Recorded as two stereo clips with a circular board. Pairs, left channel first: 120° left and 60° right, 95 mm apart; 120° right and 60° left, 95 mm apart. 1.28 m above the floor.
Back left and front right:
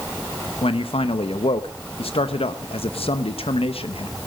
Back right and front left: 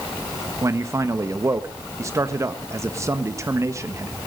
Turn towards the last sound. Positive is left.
turn(degrees=120)